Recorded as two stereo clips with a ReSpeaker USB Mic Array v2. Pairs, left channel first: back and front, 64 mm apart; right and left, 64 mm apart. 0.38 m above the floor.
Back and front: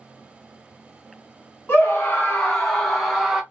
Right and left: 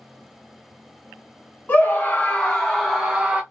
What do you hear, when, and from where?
1.7 s a scream: 130° right, 1.1 m; by 3.4 s 70° left, 0.9 m